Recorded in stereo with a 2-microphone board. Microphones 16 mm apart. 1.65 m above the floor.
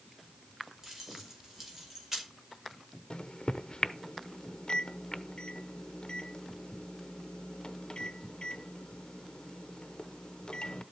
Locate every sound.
0.8 s keys jangling: 25° right (ahead or behind), 4.5 m
3.1 s a microwave: 55° left (ahead or behind), 0.7 m